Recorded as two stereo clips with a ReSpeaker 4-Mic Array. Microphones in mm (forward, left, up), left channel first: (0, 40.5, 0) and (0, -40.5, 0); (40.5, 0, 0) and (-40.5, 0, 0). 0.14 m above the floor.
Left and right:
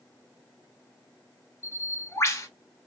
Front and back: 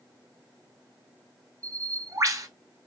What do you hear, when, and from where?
1.6 s a bird: 140° left, 0.5 m